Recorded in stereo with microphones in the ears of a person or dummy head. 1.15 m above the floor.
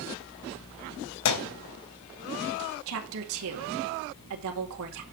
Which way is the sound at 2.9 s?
70° right (ahead or behind).